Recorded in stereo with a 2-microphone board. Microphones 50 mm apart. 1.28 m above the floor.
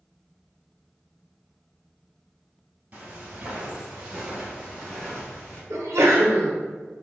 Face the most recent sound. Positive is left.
turn(degrees=-75)  # may be behind; listen again after turning